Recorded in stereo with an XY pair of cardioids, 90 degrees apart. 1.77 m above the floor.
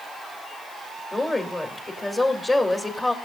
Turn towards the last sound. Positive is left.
turn(degrees=25)